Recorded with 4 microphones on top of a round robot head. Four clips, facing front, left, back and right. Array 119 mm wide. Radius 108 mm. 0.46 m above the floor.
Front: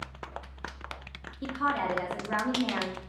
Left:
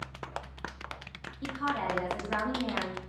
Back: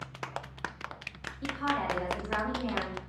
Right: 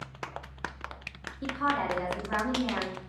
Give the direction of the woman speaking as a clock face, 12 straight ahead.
12 o'clock.